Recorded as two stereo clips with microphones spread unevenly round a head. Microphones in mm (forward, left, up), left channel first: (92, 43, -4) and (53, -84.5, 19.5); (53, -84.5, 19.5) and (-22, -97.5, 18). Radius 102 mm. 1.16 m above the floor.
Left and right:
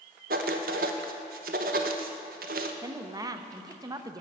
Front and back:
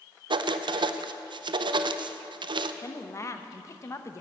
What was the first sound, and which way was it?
Writing, 155° right.